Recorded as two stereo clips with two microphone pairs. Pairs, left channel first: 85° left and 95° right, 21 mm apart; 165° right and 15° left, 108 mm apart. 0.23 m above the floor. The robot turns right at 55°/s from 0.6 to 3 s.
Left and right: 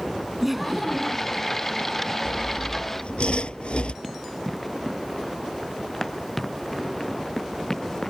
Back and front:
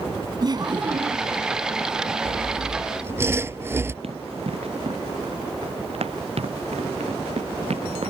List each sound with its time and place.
0.4 s laughter: 15° right; by 1.4 s 25° left
2.2 s sawing: 40° left; by 3.9 s 80° left
4.0 s running footsteps: 5° right; by 8.1 s 15° left